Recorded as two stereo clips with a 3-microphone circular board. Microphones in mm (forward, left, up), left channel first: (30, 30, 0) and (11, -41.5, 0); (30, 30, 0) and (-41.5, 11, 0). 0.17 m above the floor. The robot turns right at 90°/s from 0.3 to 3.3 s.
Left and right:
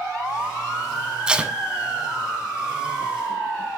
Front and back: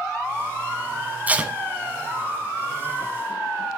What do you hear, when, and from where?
1.3 s tape being pulled: 165° right, 1.1 m; by 1.5 s 140° right, 1.1 m